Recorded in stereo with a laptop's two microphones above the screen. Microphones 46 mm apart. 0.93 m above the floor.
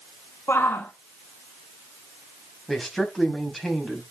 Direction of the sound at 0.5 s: 60° left (ahead or behind).